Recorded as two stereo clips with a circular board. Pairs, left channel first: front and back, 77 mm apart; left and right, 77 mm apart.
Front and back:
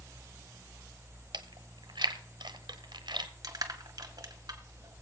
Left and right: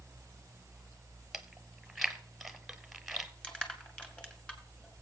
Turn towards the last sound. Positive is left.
turn(degrees=165)